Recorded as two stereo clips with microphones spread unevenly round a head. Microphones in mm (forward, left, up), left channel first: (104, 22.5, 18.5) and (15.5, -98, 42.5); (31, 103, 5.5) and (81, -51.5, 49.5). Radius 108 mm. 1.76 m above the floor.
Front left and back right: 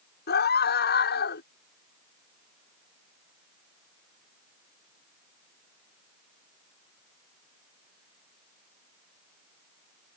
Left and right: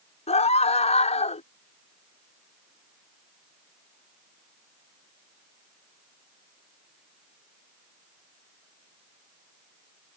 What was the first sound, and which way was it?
A scream, 55° left.